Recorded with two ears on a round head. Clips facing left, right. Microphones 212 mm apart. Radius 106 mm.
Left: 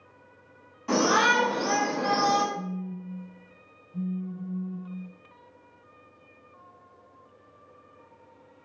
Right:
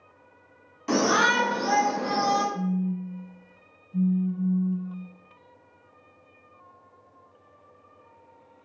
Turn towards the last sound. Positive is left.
turn(degrees=-75)  # may be behind; listen again after turning